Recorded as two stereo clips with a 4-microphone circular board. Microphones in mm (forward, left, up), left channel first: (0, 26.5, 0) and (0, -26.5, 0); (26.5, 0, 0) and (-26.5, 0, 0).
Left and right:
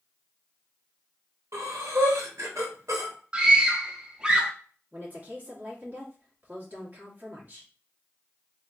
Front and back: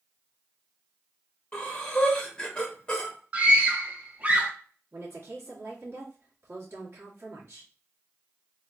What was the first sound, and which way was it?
Breathing, 75° right.